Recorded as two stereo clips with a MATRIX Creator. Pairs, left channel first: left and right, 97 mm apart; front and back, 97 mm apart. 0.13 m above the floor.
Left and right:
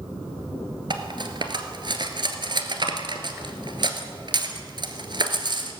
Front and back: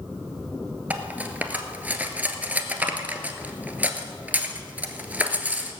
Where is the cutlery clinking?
110° right, 1.4 m.